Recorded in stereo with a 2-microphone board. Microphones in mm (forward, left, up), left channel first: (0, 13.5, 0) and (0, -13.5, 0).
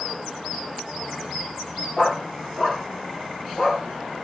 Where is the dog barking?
45° left (ahead or behind), 4.5 m; by 3.8 s 20° left (ahead or behind), 6.5 m.